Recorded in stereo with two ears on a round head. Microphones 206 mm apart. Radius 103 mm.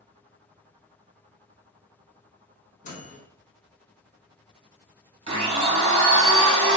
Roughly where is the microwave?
Left.